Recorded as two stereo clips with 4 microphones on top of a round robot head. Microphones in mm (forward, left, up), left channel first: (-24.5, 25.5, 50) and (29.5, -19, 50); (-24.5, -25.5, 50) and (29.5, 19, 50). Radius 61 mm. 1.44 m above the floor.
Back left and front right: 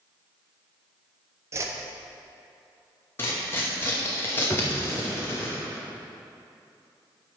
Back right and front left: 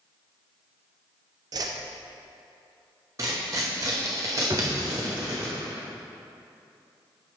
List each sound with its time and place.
1.5 s a whoosh: 10° left, 0.7 m
3.2 s tearing paper: 85° left, 0.9 m
4.5 s a drawer: 85° left, 0.6 m